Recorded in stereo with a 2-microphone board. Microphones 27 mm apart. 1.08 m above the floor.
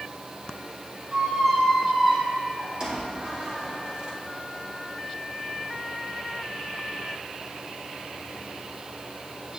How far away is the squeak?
About 1.5 m.